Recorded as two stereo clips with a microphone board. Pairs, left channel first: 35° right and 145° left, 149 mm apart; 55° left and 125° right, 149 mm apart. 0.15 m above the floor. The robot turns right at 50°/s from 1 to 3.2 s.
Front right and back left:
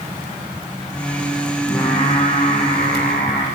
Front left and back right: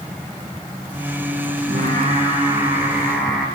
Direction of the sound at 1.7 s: 110° right.